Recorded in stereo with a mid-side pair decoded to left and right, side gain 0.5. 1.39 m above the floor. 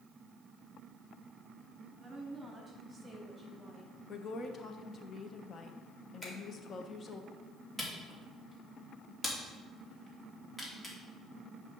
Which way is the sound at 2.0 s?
25° right.